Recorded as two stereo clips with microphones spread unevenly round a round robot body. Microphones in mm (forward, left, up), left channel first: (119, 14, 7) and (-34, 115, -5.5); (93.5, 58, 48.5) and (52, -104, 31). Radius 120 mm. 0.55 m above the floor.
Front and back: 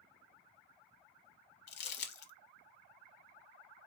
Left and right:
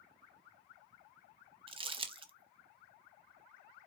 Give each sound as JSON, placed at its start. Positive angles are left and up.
{"t": 1.7, "sound": "crumpling", "azimuth_deg": -45, "distance_m": 0.6}